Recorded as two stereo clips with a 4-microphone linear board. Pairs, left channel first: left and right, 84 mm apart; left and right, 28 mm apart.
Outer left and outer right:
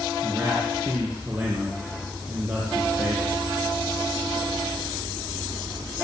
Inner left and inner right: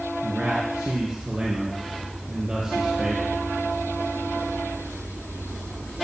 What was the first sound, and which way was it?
A man speaking, 20° right (ahead or behind).